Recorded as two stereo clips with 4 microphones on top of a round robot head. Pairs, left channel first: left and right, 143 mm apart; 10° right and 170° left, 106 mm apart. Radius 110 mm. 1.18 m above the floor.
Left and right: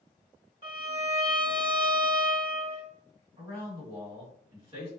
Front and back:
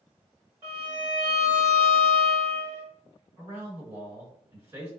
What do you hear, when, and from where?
0.6 s a violin: 140° right, 1.4 m
3.4 s a man speaking: 140° right, 1.7 m